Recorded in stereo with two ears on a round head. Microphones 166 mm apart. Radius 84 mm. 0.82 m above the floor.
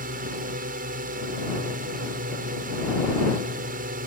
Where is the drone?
45° right (ahead or behind).